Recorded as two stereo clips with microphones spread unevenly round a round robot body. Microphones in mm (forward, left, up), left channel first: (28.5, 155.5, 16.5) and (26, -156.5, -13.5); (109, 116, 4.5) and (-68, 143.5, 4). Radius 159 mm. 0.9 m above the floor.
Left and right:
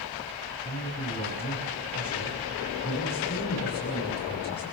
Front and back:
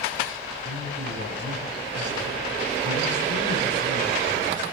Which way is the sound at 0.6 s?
165° left.